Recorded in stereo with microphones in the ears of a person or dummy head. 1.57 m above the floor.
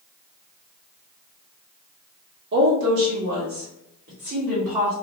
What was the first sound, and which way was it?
A woman speaking, 65° right (ahead or behind).